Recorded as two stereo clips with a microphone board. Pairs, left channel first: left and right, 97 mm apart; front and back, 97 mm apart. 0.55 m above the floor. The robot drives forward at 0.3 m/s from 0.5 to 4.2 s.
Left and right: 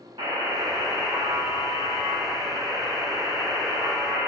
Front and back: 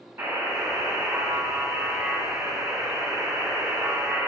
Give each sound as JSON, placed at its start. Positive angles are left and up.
{"t": 0.2, "sound": "a buzzer", "azimuth_deg": -115, "distance_m": 1.5}